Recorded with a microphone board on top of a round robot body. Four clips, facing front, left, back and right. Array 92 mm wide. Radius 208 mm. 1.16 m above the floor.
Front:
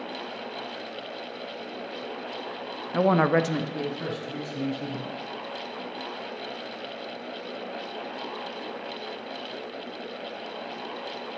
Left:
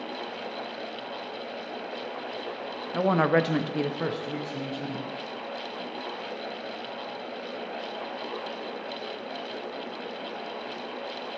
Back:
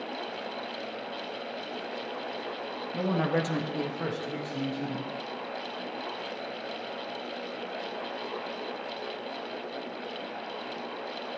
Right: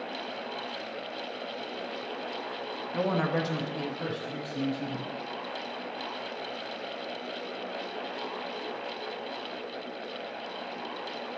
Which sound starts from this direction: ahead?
A woman speaking, at 2.9 s.